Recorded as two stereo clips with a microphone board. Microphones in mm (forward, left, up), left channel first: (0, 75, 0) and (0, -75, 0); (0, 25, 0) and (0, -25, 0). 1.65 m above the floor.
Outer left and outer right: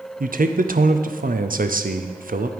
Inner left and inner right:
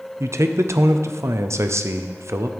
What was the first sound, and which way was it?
A man speaking, 70° right (ahead or behind).